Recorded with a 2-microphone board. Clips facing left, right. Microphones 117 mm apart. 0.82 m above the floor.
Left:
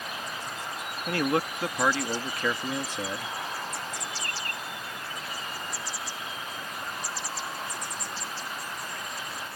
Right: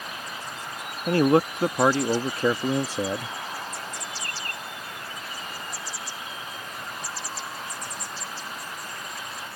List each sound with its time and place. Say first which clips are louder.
1.1 s a man speaking: right 7 dB; 30° right (ahead or behind)